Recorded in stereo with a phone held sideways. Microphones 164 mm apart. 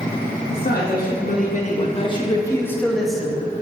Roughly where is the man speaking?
Left.